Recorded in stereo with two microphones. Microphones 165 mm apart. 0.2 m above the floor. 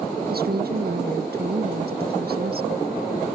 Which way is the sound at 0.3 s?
70° right (ahead or behind).